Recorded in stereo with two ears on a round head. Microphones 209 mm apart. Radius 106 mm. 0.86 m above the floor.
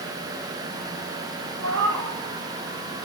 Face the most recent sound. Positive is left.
turn(degrees=-80)